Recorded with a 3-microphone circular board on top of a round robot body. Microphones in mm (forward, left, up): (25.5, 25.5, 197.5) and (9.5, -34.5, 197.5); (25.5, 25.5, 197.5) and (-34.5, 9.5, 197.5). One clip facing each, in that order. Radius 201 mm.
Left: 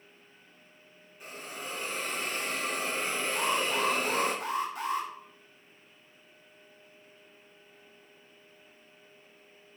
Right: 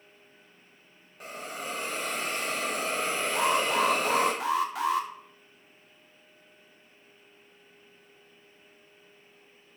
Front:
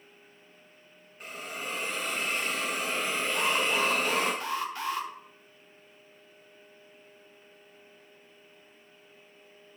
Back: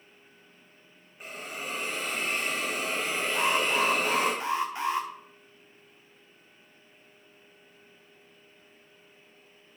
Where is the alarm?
95° right, 1.5 m.